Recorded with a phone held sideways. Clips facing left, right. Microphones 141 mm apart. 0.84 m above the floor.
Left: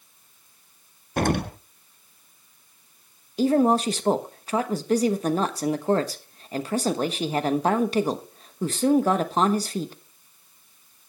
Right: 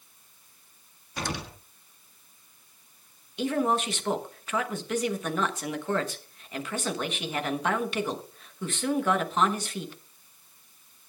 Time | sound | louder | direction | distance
1.2 | an explosion | left 11 dB | 55° left (ahead or behind) | 0.5 m
3.4 | a woman speaking | left 7 dB | 35° left (ahead or behind) | 1.0 m